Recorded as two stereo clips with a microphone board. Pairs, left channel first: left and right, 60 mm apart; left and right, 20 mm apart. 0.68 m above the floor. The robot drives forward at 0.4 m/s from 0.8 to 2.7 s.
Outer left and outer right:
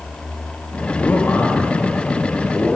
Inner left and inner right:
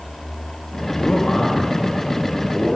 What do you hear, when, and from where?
1.0 s a man speaking: 25° left (ahead or behind), 1.2 m; by 2.8 s 20° left (ahead or behind), 1.5 m